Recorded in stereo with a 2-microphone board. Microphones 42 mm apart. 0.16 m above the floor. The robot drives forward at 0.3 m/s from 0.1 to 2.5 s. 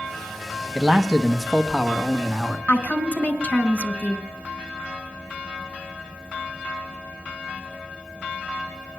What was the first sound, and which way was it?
A man speaking, 10° right (ahead or behind).